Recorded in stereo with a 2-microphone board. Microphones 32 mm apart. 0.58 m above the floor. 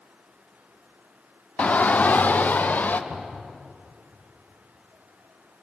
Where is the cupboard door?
80° right, 5 m.